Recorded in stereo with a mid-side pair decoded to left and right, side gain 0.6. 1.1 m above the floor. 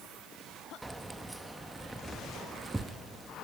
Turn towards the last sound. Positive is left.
turn(degrees=-10)